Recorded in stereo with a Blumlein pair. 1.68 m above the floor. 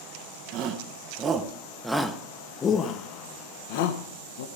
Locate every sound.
0.5 s a shout: 40° right, 1.5 m; by 4.5 s 60° left, 1.7 m